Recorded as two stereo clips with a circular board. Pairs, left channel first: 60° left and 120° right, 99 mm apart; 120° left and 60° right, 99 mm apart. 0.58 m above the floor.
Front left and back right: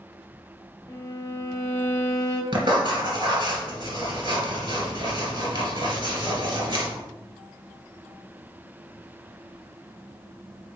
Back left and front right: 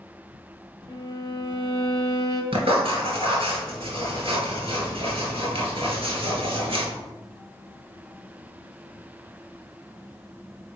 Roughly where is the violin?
Left.